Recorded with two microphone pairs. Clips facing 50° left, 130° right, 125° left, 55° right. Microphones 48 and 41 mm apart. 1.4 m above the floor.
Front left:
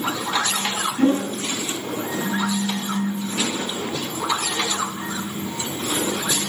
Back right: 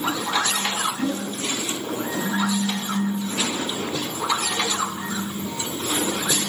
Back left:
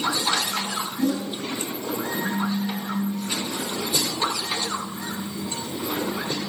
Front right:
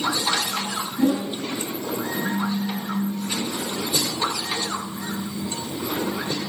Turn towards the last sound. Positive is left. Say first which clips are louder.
# front left 7 dB, front right 4 dB
turn(degrees=5)